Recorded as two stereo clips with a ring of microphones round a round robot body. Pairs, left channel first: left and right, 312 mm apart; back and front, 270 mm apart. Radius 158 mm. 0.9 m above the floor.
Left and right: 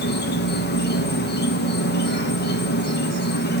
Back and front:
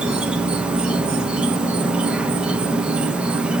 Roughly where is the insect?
Left.